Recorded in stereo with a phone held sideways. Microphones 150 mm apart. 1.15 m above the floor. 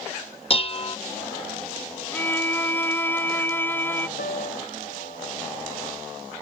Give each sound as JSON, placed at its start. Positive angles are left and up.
{"t": 0.5, "sound": "dishes clattering", "side_deg": 40}
{"t": 2.1, "sound": "a violin", "side_deg": 15}
{"t": 4.2, "sound": "a piano", "side_deg": 85}